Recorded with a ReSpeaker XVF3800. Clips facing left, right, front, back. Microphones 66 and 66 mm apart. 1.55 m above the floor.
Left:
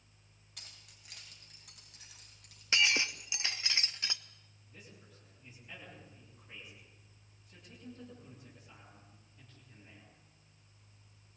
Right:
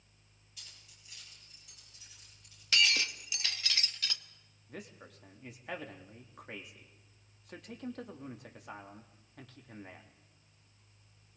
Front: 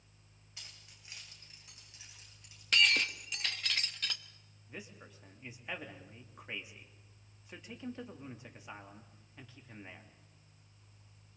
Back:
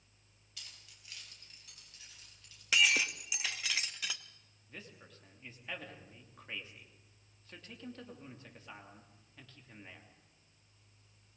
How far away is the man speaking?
About 3 m.